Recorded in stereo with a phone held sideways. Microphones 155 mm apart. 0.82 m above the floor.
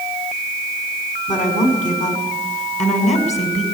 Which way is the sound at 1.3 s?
55° left (ahead or behind).